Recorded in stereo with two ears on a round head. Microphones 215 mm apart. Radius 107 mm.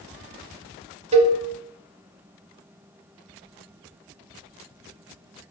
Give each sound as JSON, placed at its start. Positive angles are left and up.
{"t": 1.1, "sound": "a cowbell", "side_deg": -25, "distance_m": 0.7}